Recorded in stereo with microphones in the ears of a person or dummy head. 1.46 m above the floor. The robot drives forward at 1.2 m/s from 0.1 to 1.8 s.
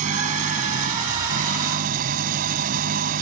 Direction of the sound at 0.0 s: 45° right (ahead or behind).